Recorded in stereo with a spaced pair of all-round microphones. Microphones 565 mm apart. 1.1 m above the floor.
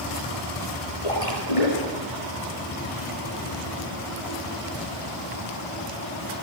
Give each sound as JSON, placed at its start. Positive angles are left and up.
{"t": 1.0, "sound": "a splash", "side_deg": 65, "distance_m": 6.5}